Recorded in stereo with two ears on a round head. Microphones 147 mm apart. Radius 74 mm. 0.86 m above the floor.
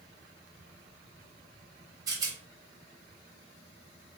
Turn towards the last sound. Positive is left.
turn(degrees=-20)  # may be behind; listen again after turning